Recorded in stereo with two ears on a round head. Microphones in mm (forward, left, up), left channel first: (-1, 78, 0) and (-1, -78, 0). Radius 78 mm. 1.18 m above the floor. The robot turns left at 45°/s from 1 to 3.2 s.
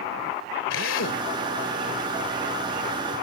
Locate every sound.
0.7 s a drill: 85° left; by 1.3 s 80° left